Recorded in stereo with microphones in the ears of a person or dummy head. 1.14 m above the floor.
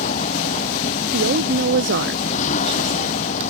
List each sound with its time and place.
0.0 s a vehicle: 35° left (ahead or behind)
1.1 s a woman speaking: 65° right (ahead or behind)